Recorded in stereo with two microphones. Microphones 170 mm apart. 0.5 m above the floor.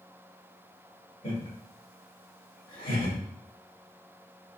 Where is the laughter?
50° left (ahead or behind), 1.8 m.